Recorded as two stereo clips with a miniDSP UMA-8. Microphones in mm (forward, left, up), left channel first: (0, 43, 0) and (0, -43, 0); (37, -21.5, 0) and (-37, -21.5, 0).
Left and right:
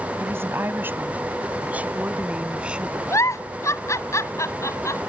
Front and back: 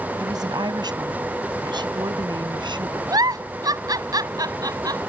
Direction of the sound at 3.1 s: 145° left.